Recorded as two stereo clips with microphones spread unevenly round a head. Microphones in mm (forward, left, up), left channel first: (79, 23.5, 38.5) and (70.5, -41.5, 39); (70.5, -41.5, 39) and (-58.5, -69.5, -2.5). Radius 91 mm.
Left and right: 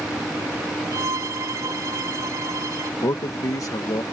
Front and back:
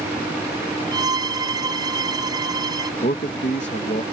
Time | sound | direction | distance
0.9 | a violin | 100° right | ?
3.0 | a man speaking | 55° left | ?